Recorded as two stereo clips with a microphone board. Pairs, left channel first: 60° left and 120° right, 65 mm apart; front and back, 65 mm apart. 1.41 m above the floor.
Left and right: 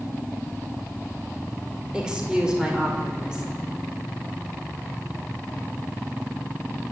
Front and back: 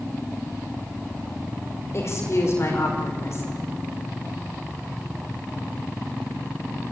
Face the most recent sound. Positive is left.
turn(degrees=-45)